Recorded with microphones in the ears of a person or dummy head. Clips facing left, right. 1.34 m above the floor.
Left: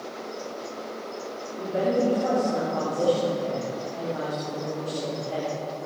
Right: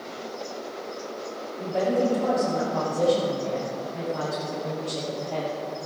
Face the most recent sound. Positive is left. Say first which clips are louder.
# even
turn(degrees=10)  # may be behind; listen again after turning